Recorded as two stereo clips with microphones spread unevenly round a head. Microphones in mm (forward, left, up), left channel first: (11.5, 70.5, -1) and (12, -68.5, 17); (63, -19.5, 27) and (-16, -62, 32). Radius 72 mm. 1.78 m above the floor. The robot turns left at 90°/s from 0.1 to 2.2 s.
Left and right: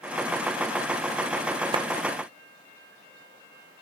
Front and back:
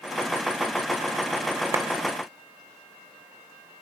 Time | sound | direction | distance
1.7 | a clap | 110° right | ?